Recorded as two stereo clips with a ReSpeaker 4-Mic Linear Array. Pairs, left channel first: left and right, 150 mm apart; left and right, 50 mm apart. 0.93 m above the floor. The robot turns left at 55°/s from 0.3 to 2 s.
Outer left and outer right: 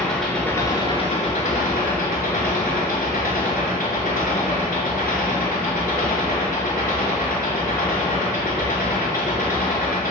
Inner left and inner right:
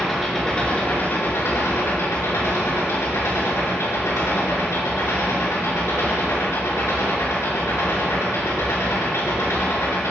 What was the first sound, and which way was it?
An engine running, 175° left.